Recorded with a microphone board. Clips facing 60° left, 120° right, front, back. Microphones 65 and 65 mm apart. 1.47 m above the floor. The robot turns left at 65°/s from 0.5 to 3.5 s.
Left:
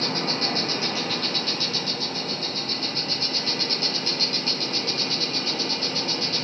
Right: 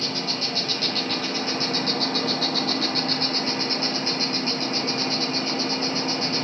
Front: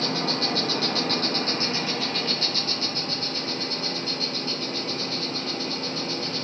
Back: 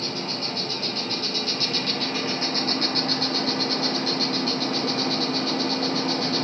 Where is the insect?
15° left, 1.1 m; by 6.5 s straight behind, 1.1 m.